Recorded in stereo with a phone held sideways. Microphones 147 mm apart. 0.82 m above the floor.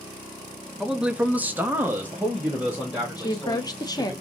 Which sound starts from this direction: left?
A woman speaking, at 3.2 s.